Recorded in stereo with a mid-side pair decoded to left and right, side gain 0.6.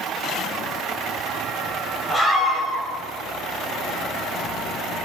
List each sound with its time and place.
2.1 s a scream: 5° left, 8.5 m